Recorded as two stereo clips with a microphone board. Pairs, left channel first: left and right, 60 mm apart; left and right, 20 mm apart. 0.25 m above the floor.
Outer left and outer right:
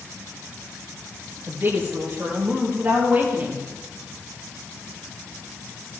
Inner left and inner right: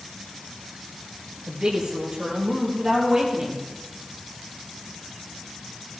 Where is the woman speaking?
35° right (ahead or behind), 4 m; by 3.6 s 30° right (ahead or behind), 5 m.